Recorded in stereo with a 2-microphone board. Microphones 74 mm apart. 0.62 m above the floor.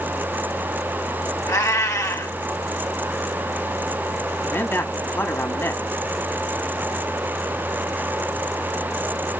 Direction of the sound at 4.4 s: 35° left (ahead or behind).